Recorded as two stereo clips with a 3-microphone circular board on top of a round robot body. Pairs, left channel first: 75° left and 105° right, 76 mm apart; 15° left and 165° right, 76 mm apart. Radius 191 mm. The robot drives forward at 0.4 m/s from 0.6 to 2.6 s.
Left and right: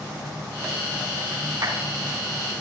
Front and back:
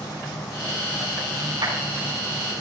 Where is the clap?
140° right, 7.5 m.